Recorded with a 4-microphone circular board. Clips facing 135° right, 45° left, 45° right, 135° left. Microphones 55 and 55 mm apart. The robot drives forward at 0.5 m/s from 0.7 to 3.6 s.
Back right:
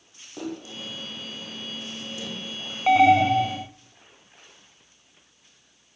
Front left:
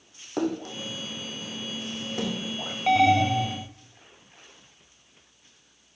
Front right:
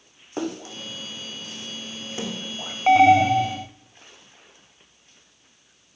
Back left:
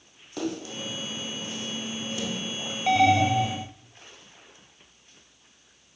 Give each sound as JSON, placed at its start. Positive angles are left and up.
{"t": 0.4, "sound": "a splash", "azimuth_deg": 10, "distance_m": 5.5}
{"t": 2.9, "sound": "an alarm", "azimuth_deg": -70, "distance_m": 1.0}